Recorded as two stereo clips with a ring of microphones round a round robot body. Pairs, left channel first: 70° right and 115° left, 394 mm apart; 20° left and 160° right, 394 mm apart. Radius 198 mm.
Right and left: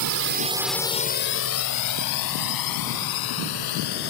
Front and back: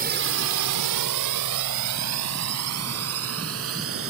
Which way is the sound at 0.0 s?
140° left.